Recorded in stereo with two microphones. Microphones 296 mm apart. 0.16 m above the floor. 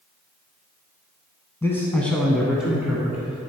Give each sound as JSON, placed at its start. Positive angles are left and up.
{"t": 1.6, "sound": "a man speaking", "side_deg": 10, "distance_m": 1.3}